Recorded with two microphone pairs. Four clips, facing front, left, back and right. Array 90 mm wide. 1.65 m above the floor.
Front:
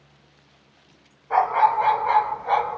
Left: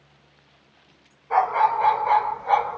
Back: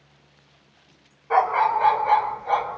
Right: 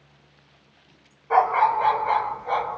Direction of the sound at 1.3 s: 145° right.